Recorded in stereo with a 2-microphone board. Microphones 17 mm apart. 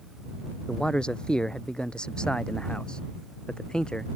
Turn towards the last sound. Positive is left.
turn(degrees=55)  # may be behind; listen again after turning